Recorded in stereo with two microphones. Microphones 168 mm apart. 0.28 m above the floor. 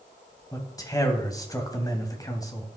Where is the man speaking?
20° left (ahead or behind), 2 m.